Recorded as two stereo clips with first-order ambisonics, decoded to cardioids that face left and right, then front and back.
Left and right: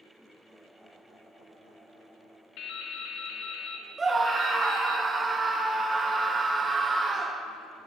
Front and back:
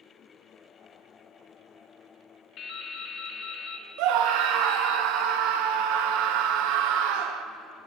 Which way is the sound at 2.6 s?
50° left.